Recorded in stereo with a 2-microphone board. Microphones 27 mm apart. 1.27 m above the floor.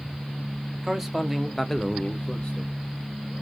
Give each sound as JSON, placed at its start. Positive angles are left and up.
{"t": 0.8, "sound": "a man speaking", "side_deg": -10, "distance_m": 1.7}